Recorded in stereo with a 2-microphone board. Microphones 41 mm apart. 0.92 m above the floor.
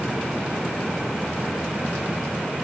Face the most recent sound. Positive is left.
No sound to turn to.